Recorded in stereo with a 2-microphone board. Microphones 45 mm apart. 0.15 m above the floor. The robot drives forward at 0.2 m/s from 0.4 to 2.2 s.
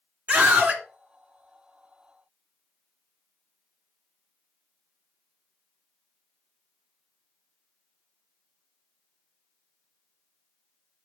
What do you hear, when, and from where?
0.3 s a scream: 35° right (ahead or behind), 1.8 m; by 0.8 s 40° right (ahead or behind), 1.8 m